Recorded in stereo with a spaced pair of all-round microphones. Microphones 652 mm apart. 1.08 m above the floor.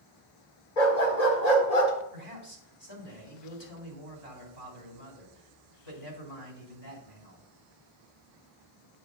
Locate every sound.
0.8 s a dog barking: 75° left (ahead or behind), 1.7 m; by 1.9 s 55° left (ahead or behind), 1.5 m
2.1 s a man speaking: 35° left (ahead or behind), 2.5 m